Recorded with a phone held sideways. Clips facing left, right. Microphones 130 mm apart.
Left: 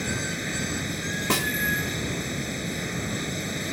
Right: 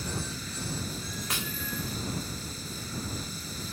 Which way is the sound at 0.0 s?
70° left (ahead or behind).